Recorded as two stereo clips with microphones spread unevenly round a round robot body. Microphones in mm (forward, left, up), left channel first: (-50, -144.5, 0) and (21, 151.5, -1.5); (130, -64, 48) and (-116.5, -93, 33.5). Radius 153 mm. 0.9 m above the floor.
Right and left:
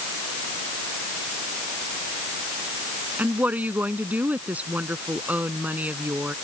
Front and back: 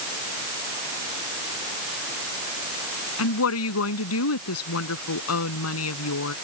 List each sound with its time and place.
3.2 s a woman speaking: 10° right